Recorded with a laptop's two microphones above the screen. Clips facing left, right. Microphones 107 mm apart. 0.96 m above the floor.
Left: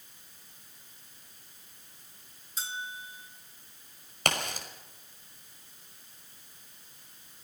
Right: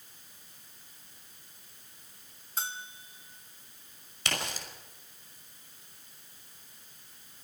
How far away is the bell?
About 1.5 m.